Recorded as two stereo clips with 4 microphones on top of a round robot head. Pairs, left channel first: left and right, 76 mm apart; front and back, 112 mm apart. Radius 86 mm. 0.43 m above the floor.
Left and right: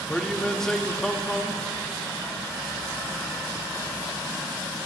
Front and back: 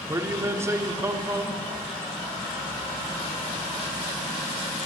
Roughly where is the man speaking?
Behind.